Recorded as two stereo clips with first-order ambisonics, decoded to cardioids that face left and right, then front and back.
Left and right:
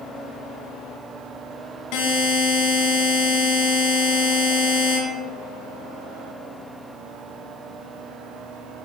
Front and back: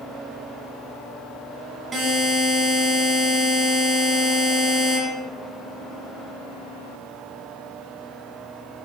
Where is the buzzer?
110° left, 3.5 m.